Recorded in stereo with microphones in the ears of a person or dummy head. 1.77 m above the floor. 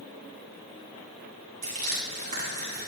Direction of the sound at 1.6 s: 45° right (ahead or behind).